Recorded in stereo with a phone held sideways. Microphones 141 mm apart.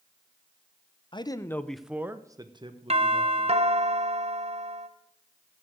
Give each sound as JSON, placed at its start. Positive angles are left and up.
{"t": 1.1, "sound": "a man speaking", "side_deg": 35, "distance_m": 0.8}
{"t": 2.9, "sound": "a doorbell", "side_deg": -45, "distance_m": 1.1}